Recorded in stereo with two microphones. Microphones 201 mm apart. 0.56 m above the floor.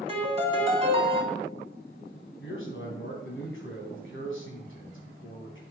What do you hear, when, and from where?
0.1 s a piano: 30° right (ahead or behind), 2 m
2.4 s a man speaking: 80° left, 3.5 m